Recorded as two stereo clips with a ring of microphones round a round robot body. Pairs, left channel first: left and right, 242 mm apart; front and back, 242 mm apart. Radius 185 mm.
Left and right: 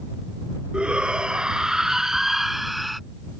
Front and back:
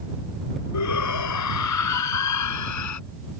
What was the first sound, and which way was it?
A shout, 5° right.